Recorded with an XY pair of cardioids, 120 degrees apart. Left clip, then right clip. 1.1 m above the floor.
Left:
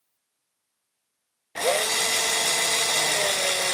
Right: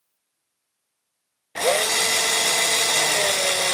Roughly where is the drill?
Ahead.